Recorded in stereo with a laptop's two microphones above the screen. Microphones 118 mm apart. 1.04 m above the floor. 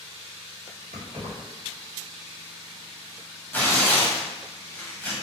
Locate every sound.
0.9 s keys jangling: 80° right, 1.4 m
3.5 s tearing paper: 15° left (ahead or behind), 1.1 m